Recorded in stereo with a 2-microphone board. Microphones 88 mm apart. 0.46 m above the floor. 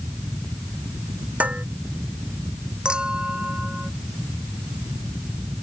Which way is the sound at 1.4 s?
15° right (ahead or behind).